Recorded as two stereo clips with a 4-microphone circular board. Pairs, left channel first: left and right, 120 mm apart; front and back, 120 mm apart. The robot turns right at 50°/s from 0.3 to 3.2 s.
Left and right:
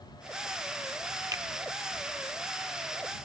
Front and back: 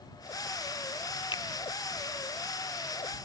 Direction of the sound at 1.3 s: 35° right.